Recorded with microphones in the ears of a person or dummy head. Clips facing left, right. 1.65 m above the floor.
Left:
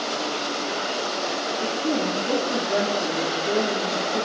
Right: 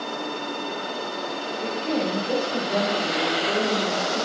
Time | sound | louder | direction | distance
1.6 | a woman speaking | even | 45° left (ahead or behind) | 4.5 m